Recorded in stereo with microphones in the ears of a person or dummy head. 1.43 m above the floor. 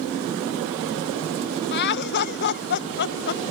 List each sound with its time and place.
1.7 s laughter: 50° left (ahead or behind)